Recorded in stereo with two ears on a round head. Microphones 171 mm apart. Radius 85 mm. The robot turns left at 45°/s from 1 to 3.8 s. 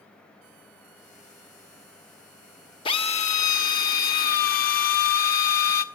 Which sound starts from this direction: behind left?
A drill, at 2.9 s.